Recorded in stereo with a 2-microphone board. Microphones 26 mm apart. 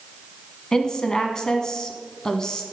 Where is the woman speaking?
25° left (ahead or behind), 1.0 m.